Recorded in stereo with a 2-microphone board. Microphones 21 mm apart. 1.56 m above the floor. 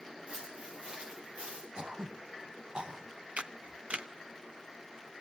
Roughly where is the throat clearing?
Right.